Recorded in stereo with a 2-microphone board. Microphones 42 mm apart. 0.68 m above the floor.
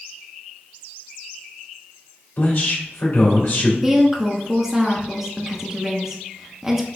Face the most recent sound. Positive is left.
turn(degrees=-10)  # may be behind; listen again after turning